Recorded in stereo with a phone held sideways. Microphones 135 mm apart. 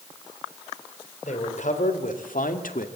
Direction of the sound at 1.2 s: 60° left (ahead or behind).